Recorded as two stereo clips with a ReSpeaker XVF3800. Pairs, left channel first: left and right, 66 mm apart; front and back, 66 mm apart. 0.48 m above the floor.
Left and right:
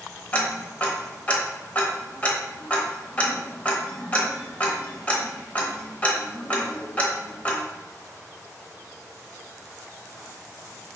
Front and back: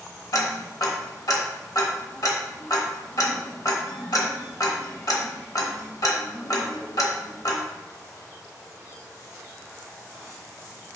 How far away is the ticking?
About 0.8 m.